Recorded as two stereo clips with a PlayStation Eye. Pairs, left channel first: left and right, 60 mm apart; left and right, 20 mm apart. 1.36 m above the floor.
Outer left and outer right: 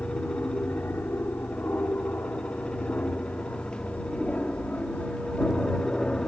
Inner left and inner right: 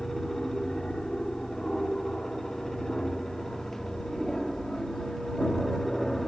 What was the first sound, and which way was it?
An aircraft, 40° left (ahead or behind).